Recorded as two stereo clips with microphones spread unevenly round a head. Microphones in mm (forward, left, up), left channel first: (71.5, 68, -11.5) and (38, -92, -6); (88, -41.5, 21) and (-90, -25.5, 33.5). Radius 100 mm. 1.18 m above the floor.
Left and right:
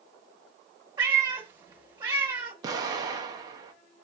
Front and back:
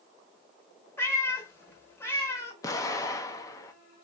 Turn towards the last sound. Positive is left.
turn(degrees=-55)